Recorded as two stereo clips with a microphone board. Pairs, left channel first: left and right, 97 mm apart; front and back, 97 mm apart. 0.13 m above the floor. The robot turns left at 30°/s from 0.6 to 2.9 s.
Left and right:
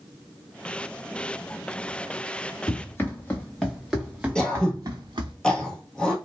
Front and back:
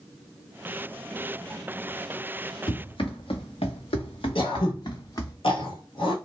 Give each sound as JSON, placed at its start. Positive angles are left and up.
{"t": 2.7, "sound": "running footsteps", "azimuth_deg": 30, "distance_m": 1.5}
{"t": 4.3, "sound": "throat clearing", "azimuth_deg": 10, "distance_m": 0.9}